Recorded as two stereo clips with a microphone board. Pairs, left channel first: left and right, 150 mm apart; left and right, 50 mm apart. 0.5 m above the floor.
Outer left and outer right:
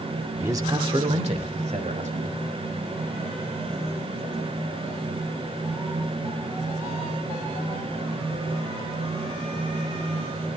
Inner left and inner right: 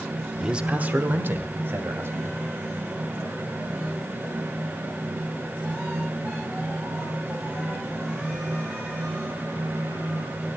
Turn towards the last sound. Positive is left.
turn(degrees=-55)  # may be behind; listen again after turning